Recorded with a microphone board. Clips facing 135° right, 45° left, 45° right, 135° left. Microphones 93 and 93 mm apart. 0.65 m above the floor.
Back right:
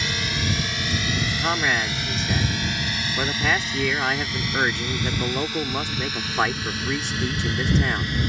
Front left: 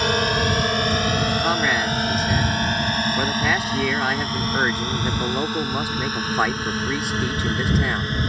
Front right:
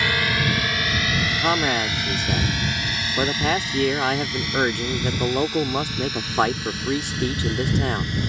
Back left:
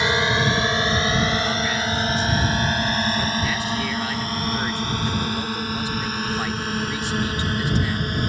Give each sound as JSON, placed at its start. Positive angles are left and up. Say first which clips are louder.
{"t": 0.0, "sound": "a drone", "louder": "front left 8 dB, back left 3 dB", "azimuth_deg": 70}
{"t": 1.4, "sound": "a man speaking", "louder": "front left 3 dB, front right 2 dB", "azimuth_deg": -40}